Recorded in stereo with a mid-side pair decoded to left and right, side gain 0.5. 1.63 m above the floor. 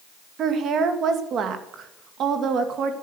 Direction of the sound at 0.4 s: 60° right.